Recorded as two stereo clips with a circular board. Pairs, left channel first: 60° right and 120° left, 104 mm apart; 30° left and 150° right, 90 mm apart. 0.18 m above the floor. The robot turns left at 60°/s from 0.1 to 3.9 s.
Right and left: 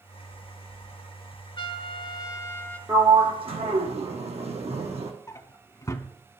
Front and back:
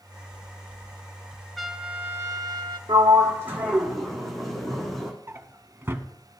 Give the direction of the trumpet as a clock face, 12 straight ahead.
2 o'clock.